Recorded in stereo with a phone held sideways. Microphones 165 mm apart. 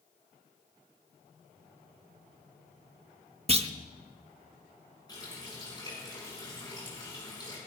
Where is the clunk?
40° right (ahead or behind), 0.8 m.